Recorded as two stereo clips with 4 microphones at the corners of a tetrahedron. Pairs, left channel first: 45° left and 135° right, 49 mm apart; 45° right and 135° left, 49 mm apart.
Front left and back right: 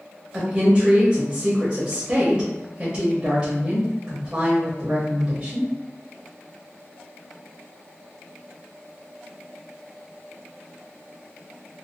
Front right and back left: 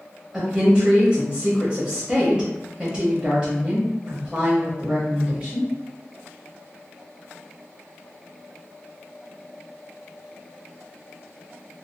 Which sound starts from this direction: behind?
A woman speaking, at 0.3 s.